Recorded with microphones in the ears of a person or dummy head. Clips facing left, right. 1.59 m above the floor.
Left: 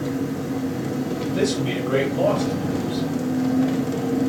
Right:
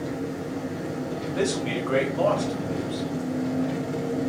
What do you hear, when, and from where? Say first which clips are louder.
0.0 s an engine running: left 5 dB; 75° left (ahead or behind), 1.1 m
1.3 s a man speaking: left 3 dB; 30° left (ahead or behind), 2 m